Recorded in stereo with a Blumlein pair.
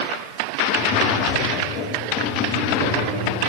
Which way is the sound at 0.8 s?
35° left.